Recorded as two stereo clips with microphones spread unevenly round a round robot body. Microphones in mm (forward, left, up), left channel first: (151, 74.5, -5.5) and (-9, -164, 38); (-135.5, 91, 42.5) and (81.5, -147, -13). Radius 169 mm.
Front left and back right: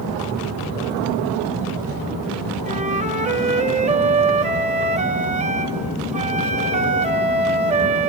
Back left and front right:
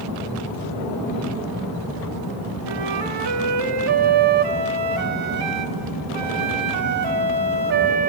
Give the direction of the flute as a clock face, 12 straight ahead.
2 o'clock.